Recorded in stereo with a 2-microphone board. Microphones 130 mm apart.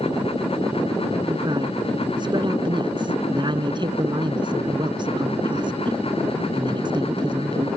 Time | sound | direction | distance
1.3 | a man speaking | 35° right (ahead or behind) | ?